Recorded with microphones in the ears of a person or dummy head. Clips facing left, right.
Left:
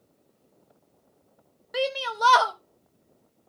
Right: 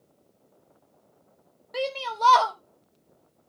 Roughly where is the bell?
No bell in this recording.